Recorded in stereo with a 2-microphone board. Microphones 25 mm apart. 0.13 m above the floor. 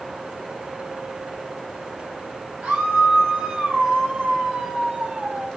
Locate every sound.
2.6 s a scream: 75° right (ahead or behind), 4 m; by 5.5 s 60° right (ahead or behind), 3.5 m